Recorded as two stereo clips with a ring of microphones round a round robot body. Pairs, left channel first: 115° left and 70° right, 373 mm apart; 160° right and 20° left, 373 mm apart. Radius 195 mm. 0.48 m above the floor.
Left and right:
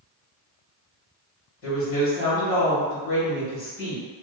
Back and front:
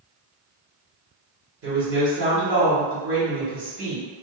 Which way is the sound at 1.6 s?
70° left.